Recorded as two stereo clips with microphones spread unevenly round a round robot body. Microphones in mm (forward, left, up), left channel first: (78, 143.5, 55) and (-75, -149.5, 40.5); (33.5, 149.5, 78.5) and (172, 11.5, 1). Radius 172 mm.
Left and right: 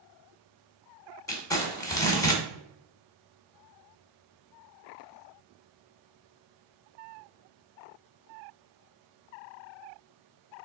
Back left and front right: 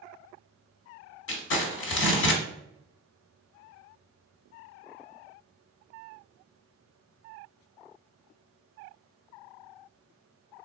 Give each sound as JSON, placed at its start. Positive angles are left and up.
{"t": 1.3, "sound": "crumpling", "azimuth_deg": 140, "distance_m": 0.9}